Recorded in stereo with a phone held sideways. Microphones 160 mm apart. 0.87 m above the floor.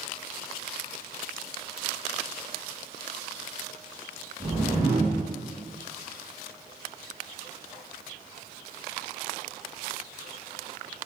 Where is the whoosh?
15° right (ahead or behind), 1.5 m.